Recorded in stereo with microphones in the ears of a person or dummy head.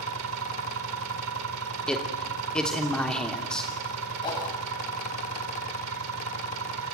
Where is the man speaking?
5° left (ahead or behind), 2.5 m.